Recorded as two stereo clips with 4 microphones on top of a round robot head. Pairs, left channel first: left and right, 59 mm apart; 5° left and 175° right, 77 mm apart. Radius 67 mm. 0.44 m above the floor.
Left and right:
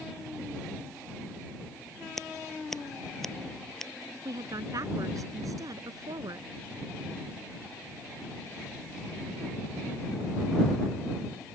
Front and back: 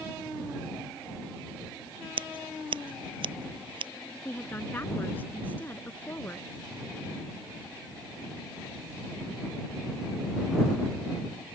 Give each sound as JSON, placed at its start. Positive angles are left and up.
{"t": 2.2, "sound": "scissors", "azimuth_deg": 175}
{"t": 4.2, "sound": "a woman speaking", "azimuth_deg": -65}